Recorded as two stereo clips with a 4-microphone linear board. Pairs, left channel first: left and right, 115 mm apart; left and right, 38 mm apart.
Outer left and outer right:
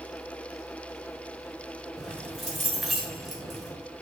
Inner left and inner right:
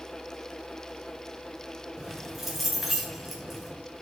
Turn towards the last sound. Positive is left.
turn(degrees=0)  # may be behind; listen again after turning